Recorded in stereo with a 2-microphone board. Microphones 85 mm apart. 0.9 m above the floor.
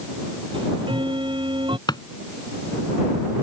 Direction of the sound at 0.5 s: 80° right.